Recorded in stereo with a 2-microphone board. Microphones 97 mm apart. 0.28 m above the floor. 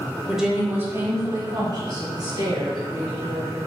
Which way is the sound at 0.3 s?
Centre (ahead or behind).